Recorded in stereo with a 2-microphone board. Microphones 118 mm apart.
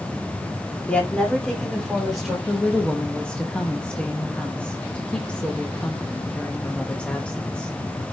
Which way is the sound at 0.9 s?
10° left (ahead or behind).